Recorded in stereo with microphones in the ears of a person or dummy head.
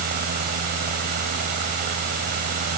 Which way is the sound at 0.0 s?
55° right (ahead or behind).